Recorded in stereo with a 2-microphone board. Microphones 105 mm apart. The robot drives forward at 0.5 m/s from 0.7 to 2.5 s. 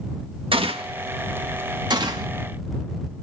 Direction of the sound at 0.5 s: 55° right (ahead or behind).